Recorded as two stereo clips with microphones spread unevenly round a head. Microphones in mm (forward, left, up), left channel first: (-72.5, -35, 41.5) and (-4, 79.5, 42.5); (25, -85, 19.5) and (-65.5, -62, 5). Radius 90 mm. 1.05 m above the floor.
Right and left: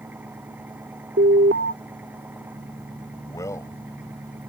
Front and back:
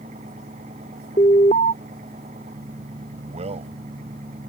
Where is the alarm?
25° left.